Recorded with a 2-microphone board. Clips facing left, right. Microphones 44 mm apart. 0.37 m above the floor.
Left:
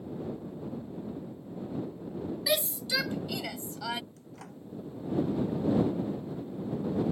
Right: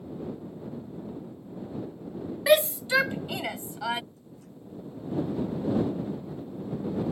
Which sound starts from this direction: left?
A microwave, at 4.2 s.